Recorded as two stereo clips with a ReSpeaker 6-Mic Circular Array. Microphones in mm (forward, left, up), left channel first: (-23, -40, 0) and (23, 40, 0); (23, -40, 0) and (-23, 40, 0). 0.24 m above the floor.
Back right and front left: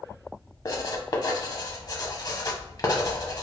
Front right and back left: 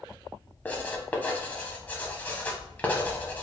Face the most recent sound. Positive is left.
turn(degrees=-125)